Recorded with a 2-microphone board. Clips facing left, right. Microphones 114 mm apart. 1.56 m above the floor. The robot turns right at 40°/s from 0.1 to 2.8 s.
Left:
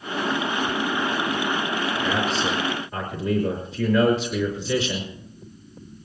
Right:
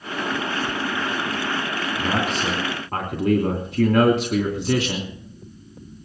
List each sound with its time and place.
2.0 s a man speaking: 125° right, 3 m; by 5.1 s 95° right, 3 m